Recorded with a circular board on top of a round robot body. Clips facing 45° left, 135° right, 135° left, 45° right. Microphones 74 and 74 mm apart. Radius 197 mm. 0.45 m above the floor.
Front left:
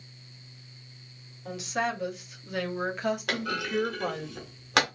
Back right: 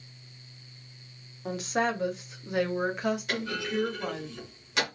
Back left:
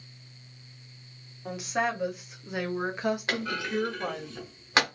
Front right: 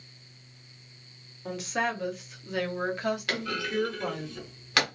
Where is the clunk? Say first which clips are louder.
Front left 1 dB, back left 1 dB; 70° left, 0.7 m.